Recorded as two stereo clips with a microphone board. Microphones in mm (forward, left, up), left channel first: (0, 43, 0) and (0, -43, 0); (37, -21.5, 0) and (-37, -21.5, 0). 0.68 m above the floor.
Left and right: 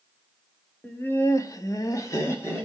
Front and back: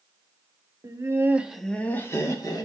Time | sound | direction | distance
0.8 | laughter | 155° left | 1.2 m